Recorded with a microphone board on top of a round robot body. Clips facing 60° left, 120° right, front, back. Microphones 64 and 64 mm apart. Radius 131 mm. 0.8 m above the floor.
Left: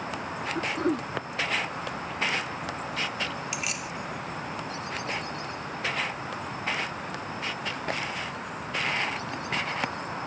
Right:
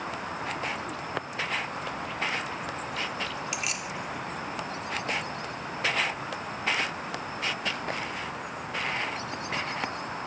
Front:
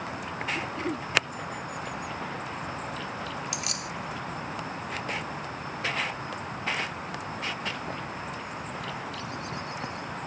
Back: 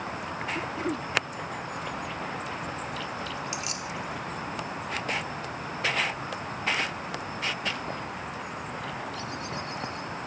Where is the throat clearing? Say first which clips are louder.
Left 6 dB, back 1 dB; 95° left.